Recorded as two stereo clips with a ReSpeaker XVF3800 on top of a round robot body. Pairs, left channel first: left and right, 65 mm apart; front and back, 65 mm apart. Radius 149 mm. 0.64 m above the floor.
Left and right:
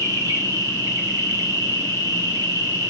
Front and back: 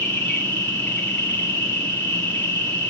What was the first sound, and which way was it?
An insect, 65° right.